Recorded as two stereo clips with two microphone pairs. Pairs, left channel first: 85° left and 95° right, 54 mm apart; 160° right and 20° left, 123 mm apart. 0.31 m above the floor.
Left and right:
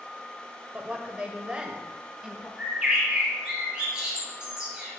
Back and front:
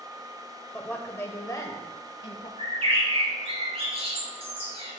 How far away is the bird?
About 4 m.